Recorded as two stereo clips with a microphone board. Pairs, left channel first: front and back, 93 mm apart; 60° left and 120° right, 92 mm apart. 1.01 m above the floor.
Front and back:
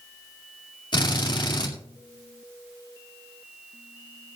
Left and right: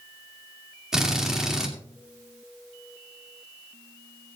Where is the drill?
35° right, 2 m.